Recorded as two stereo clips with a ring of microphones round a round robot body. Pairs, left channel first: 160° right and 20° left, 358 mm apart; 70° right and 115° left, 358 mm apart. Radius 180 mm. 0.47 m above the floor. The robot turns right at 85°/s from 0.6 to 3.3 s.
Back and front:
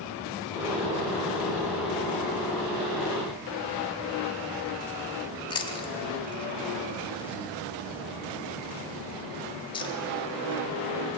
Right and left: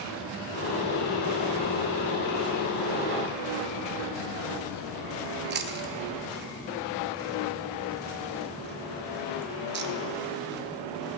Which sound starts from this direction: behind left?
Chewing, at 5.5 s.